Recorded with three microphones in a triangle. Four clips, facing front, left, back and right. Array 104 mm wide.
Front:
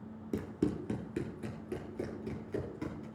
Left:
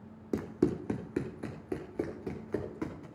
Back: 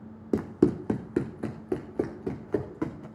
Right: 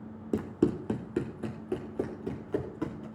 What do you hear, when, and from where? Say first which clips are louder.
0.3 s running footsteps: right 2 dB, back 10 dB; 165° right, 1.1 m; by 3.1 s 170° right, 3 m